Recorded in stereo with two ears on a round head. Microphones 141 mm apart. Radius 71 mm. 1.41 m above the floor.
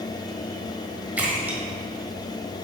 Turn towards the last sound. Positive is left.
turn(degrees=-10)  # may be behind; listen again after turning